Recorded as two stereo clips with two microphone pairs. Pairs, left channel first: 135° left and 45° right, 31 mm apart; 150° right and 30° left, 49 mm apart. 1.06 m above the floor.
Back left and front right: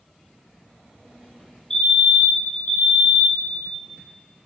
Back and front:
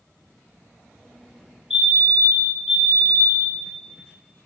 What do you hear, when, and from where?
1.7 s a fire alarm: 100° left, 1.2 m